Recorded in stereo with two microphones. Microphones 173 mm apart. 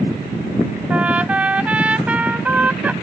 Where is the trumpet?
5° right (ahead or behind).